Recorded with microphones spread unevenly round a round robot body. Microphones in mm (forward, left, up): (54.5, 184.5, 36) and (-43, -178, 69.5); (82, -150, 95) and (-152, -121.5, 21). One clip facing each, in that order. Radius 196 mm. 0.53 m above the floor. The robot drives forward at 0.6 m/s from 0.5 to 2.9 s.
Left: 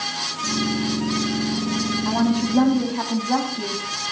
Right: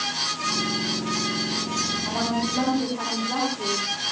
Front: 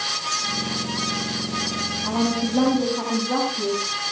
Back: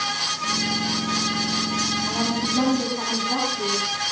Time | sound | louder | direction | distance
2.0 | a woman speaking | left 7 dB, front 6 dB | 50° left | 4 m